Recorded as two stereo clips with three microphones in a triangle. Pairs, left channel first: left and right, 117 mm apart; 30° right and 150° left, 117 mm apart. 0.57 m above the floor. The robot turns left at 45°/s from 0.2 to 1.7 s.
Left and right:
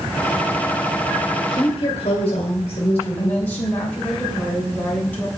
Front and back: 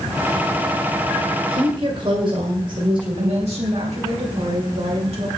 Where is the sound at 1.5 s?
120° left, 1.9 m; by 3.5 s 110° left, 1.9 m.